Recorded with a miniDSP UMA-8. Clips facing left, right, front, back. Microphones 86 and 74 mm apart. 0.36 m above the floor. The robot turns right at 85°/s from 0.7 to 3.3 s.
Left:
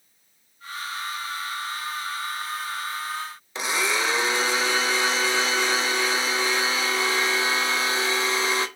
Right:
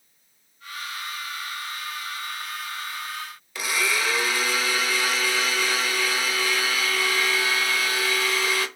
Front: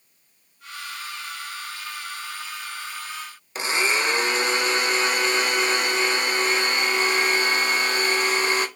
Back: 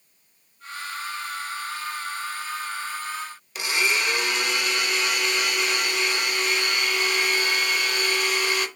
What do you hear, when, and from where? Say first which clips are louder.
3.5 s a blender: left 1 dB, front 2 dB; 40° left, 0.6 m